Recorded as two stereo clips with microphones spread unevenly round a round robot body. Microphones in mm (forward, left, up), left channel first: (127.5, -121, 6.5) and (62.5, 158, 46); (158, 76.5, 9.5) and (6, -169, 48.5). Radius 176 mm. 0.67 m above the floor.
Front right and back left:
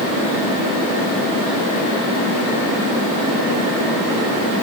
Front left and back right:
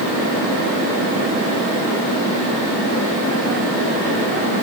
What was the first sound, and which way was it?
Only background noise.